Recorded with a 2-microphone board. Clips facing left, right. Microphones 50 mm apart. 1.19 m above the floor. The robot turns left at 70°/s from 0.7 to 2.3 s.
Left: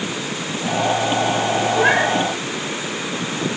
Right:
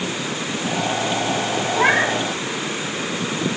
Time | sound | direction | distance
1.7 | a cat meowing | 80° right | 4 m